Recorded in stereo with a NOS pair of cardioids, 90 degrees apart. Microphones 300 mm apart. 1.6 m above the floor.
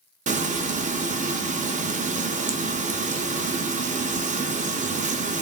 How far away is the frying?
About 0.5 m.